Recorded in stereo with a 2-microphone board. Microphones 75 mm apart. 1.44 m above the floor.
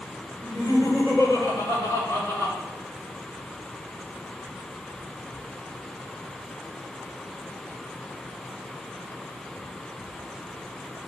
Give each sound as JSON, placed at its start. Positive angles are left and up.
{"t": 0.4, "sound": "laughter", "side_deg": 50, "distance_m": 5.5}